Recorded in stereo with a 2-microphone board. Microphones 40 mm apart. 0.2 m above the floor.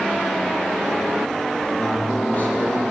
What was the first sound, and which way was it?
A man speaking, 50° left (ahead or behind).